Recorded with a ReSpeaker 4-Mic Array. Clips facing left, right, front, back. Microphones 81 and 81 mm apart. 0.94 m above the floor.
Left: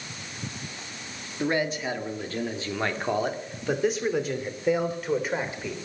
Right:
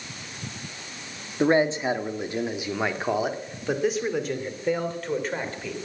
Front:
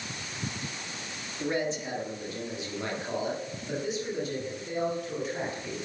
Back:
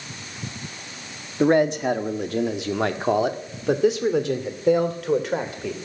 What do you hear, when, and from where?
1.4 s a man speaking: 150° right, 1.4 m; by 5.8 s 170° left, 3 m